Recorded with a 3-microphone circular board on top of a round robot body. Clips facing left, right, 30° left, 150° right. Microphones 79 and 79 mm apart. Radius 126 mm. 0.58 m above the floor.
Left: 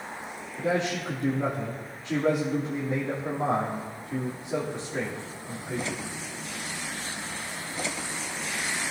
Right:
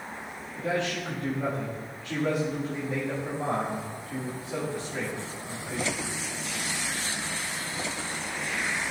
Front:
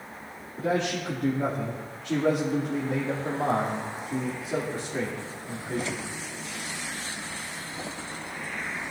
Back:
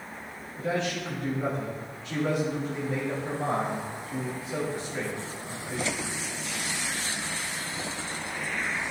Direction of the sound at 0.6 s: 40° left.